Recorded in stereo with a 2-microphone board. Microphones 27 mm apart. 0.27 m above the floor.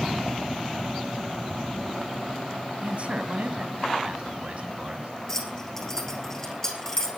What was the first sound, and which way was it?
A man speaking, 45° right (ahead or behind).